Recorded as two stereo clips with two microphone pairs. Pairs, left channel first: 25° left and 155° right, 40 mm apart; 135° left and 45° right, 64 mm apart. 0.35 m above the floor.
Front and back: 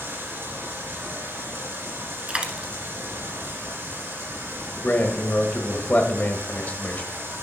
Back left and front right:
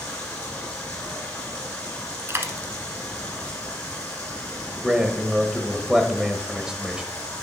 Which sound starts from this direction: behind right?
Running water, at 0.0 s.